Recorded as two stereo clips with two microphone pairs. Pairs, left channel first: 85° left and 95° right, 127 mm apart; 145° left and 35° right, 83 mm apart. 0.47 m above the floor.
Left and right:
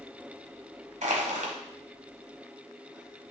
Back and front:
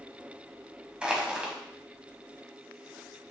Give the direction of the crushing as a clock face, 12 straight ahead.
4 o'clock.